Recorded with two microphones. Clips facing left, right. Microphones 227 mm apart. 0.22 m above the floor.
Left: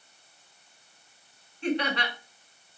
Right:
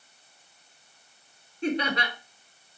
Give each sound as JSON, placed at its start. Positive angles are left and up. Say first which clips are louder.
{"t": 1.6, "sound": "laughter", "louder": "even", "side_deg": -40, "distance_m": 1.7}